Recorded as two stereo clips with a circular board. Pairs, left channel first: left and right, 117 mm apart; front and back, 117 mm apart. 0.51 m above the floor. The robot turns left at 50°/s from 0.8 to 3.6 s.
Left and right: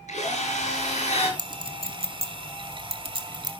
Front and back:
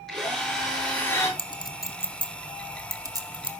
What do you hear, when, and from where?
0.1 s a drill: 85° left, 9 m; by 1.3 s 60° left, 9 m
1.4 s a clink: 35° right, 1.8 m; by 3.5 s 145° right, 1.8 m